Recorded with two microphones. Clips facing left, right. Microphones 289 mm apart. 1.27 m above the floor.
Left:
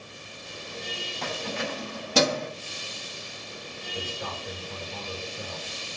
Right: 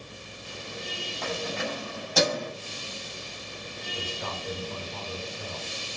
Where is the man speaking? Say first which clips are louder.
Left 1 dB; 60° left (ahead or behind), 5.5 m.